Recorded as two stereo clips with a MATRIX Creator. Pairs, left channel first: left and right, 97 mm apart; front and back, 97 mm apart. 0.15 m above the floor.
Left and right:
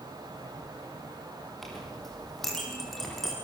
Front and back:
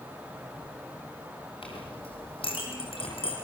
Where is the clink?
Straight ahead, 5 m.